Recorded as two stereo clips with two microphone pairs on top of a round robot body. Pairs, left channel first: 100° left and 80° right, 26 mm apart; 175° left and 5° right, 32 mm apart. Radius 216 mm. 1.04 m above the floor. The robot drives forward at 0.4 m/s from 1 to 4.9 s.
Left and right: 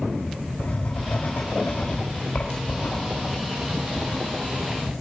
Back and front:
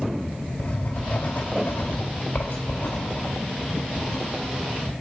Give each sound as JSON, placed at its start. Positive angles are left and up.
{"t": 0.6, "sound": "writing", "azimuth_deg": 125, "distance_m": 2.0}